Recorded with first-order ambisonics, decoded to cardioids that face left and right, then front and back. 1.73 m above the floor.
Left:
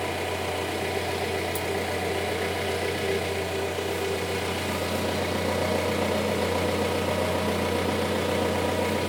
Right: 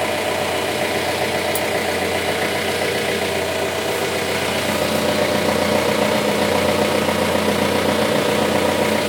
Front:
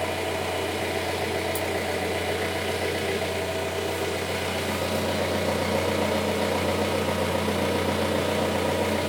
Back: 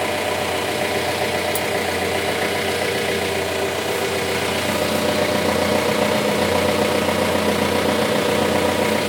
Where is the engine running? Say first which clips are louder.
Right 9 dB, back 6 dB; 130° right, 1.3 m.